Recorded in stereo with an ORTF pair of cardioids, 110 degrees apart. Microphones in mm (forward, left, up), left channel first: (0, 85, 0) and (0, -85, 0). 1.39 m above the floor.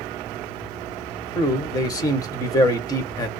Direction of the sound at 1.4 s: 20° left.